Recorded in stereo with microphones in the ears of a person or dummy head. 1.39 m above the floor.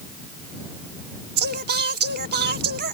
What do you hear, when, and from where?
1.4 s singing: 55° right (ahead or behind)